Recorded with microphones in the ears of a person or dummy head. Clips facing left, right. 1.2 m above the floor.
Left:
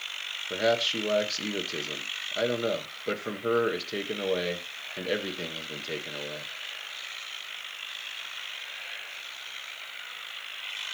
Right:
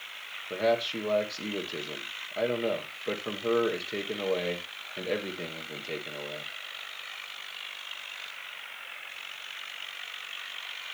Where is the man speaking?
5° left (ahead or behind), 0.8 m.